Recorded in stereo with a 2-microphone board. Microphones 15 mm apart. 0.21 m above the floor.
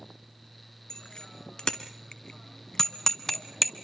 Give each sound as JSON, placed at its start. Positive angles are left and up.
{"t": 0.9, "sound": "a bicycle bell", "side_deg": 60, "distance_m": 2.0}